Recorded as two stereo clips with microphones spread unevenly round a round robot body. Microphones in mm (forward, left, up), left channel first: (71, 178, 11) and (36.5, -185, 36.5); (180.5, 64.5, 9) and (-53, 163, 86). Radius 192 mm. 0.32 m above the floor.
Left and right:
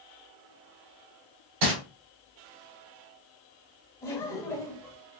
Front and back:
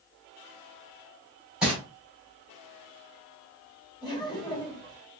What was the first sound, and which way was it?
Crumpling, 105° right.